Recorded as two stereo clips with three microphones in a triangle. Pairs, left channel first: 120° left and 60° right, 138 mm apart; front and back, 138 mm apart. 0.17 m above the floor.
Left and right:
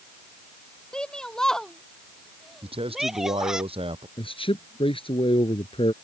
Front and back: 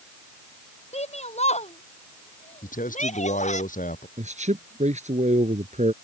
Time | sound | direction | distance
0.9 | a shout | 35° left | ?
2.6 | a man speaking | 15° right | ?
4.2 | a man speaking | 165° left | ?